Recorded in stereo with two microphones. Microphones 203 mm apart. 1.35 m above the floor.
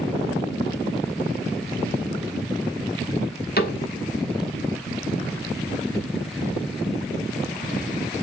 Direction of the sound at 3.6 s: 50° left (ahead or behind).